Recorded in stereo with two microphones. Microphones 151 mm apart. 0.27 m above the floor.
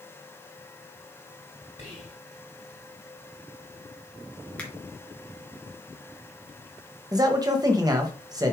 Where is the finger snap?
10° left (ahead or behind), 1.9 m.